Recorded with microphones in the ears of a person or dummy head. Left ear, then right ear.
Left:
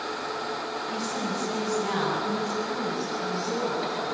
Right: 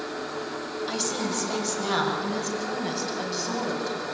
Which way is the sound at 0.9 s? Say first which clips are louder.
Right 4 dB; 55° right (ahead or behind).